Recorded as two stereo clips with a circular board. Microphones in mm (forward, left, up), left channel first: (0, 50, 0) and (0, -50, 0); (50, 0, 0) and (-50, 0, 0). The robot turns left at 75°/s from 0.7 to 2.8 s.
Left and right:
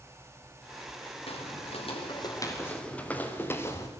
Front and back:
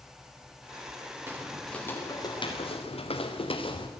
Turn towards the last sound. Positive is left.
turn(degrees=30)